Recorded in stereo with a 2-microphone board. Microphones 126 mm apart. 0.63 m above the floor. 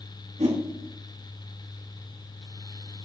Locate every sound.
0.4 s a whoosh: 65° right (ahead or behind), 4.5 m